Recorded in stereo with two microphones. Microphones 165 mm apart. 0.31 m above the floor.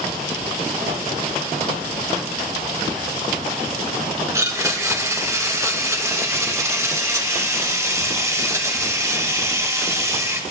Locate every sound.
4.3 s a blender: 20° right (ahead or behind), 1.2 m